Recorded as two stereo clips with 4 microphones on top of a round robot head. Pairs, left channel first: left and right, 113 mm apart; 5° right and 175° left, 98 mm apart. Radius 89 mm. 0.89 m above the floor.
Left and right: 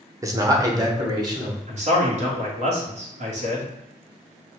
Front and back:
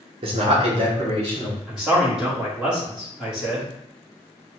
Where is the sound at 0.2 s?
155° right, 0.9 m; by 1.6 s 145° right, 2 m.